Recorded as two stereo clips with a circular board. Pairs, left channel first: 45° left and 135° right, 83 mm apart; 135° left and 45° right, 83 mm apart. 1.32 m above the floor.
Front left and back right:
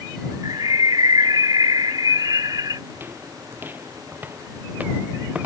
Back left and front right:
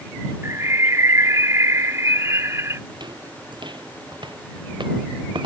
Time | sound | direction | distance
0.4 | a bird | 100° right | ?
2.9 | footsteps | 70° right | ?